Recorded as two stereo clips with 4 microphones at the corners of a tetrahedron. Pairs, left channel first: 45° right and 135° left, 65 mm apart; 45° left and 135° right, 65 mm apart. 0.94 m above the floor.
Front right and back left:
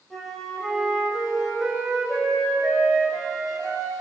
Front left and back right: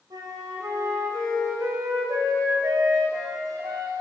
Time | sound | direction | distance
0.1 | a flute | 130° right | 4.5 m